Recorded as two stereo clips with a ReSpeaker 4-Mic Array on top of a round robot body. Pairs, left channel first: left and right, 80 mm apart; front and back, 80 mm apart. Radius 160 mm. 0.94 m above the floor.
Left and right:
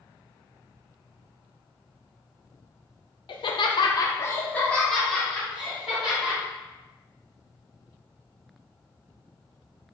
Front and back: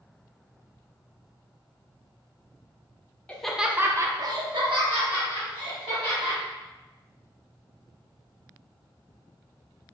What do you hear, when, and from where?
3.3 s laughter: 75° left, 0.6 m; by 6.4 s 175° right, 1.8 m